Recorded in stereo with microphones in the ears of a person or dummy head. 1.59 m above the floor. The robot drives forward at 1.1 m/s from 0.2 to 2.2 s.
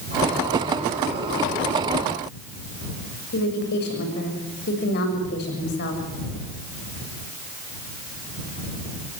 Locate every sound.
3.3 s a woman speaking: 55° left (ahead or behind), 6.5 m